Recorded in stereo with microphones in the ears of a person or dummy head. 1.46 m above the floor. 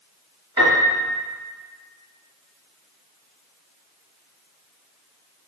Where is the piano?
20° right (ahead or behind), 3.5 m.